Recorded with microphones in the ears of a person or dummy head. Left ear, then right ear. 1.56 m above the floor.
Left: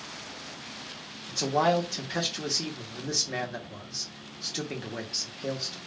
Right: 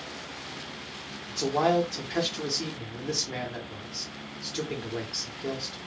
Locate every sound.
1.3 s a man speaking: 15° left (ahead or behind), 0.7 m